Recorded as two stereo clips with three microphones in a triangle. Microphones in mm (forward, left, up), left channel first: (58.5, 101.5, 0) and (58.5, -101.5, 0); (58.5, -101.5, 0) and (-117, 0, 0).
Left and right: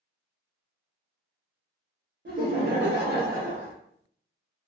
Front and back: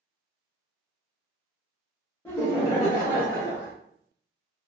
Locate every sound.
2.2 s laughter: 105° right, 0.7 m; by 3.7 s 35° right, 0.7 m